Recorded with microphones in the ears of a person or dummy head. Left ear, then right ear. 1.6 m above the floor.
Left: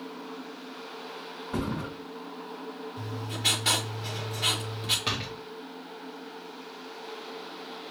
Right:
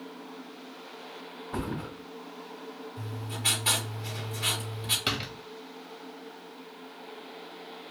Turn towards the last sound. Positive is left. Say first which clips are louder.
# even
turn(degrees=-15)  # may be behind; listen again after turning